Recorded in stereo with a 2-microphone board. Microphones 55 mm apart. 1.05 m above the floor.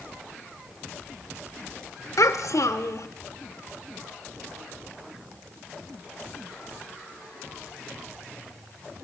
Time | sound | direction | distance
2.2 | a child speaking | 75° left (ahead or behind) | 1.7 m